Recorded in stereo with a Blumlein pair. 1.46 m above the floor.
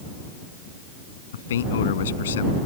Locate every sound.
1.3 s a man speaking: 60° left